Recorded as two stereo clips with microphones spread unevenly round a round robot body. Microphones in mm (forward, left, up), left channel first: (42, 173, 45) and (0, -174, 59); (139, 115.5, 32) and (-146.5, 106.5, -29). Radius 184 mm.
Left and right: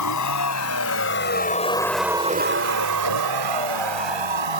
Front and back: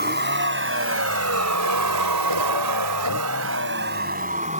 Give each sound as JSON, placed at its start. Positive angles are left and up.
{"t": 0.0, "sound": "a vehicle", "azimuth_deg": 125}